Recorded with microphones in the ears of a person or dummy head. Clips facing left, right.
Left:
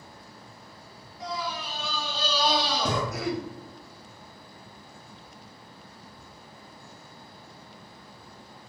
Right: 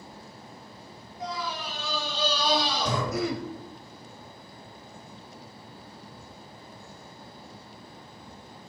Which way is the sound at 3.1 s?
80° right.